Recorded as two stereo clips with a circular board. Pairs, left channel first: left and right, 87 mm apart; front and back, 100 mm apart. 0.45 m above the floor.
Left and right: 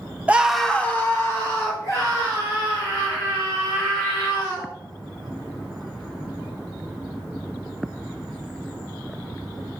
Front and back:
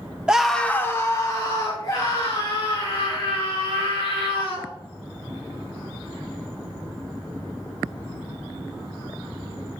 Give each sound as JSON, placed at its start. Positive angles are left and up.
{"t": 0.3, "sound": "a scream", "azimuth_deg": -120, "distance_m": 1.0}